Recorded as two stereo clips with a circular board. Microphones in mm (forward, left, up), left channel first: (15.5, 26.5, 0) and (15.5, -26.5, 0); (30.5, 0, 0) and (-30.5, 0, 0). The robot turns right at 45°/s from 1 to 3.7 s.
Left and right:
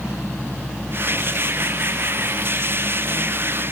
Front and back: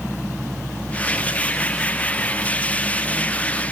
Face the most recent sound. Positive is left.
No sound to turn to.